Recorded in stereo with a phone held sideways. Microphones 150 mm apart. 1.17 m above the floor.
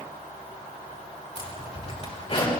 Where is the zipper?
45° left (ahead or behind), 5 m.